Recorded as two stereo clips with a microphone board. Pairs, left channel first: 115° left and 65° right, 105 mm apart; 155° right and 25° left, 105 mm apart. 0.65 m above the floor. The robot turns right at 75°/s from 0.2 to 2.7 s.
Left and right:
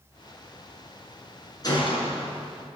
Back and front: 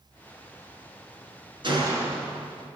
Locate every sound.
1.6 s a gunshot: 65° left, 6.5 m; by 2.3 s 110° left, 6.5 m